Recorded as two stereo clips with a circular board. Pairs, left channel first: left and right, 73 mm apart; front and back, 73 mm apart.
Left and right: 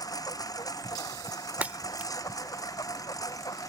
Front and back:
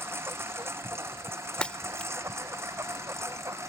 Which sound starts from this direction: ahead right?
Breaking glass, at 1.6 s.